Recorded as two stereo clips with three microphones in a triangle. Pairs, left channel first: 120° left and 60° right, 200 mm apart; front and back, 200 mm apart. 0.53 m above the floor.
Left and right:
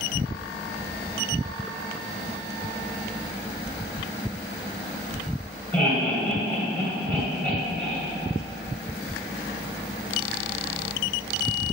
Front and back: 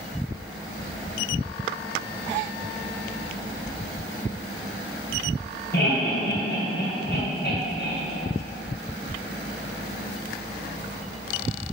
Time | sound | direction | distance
5.7 | laughter | 40° left | 2.5 m